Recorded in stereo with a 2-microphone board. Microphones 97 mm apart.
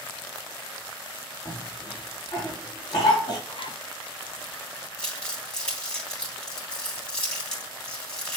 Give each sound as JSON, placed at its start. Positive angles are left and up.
{"t": 1.4, "sound": "a cough", "side_deg": 60, "distance_m": 5.0}
{"t": 3.5, "sound": "a zipper", "side_deg": 60, "distance_m": 1.1}
{"t": 5.0, "sound": "crumpling", "side_deg": 10, "distance_m": 3.5}